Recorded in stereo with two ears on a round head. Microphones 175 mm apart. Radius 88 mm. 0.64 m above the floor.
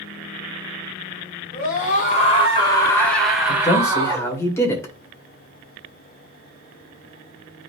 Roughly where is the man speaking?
Centre.